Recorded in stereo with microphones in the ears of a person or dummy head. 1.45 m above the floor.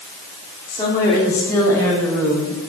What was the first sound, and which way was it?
A woman speaking, 15° left (ahead or behind).